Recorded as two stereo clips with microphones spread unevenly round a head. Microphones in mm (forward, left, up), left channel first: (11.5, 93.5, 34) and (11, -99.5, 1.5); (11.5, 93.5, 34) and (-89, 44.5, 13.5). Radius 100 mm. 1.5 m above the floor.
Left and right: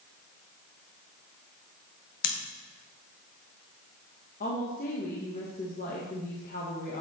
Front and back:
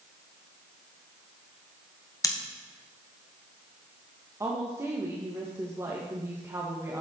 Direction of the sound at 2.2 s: 90° left.